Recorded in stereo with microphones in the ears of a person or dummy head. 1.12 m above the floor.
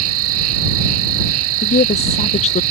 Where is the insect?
80° right.